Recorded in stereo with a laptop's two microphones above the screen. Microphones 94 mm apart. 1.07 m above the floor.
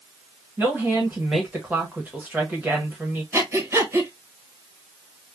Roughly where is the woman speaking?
Centre.